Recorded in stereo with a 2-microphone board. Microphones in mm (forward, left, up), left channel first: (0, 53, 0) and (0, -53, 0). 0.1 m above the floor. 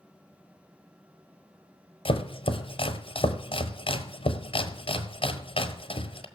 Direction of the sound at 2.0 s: 60° left (ahead or behind).